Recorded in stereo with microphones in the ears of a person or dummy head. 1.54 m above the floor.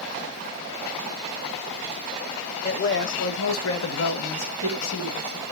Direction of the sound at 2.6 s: 40° left (ahead or behind).